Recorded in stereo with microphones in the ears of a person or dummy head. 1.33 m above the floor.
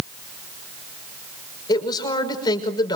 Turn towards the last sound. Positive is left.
turn(degrees=30)  # may be behind; listen again after turning